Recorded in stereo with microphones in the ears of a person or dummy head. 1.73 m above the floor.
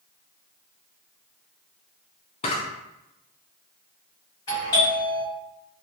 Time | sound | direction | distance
2.4 | a camera shutter | 30° left (ahead or behind) | 0.6 m
4.5 | a doorbell | 20° left (ahead or behind) | 1.7 m